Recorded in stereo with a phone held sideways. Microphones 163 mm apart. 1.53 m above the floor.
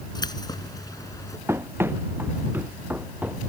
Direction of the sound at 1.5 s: 15° right (ahead or behind).